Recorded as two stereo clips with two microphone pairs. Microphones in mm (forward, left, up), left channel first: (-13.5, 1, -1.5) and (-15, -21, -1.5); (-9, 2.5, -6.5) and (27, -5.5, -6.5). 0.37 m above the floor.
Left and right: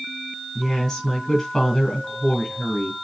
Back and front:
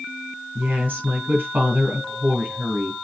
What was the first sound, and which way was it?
A woman speaking, 20° left.